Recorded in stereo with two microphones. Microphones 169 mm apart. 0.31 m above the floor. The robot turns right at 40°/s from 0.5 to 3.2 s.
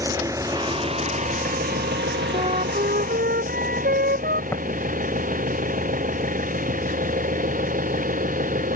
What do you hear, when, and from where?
0.0 s an engine running: 160° right; by 8.8 s 55° right
2.3 s a flute: 145° right; by 4.4 s 110° right
4.5 s tapping: 15° left (ahead or behind)